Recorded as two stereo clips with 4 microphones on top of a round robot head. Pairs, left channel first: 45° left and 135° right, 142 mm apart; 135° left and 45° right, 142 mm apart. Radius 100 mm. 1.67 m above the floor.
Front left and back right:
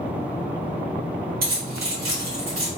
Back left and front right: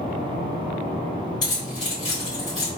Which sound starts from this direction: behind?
Keys jangling, at 1.4 s.